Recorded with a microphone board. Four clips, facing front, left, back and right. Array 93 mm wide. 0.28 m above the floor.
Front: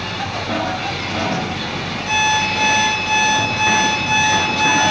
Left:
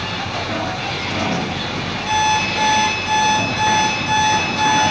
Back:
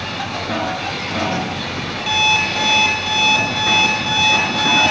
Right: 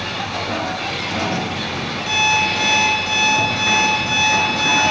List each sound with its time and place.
2.1 s an alarm clock: 175° right, 3 m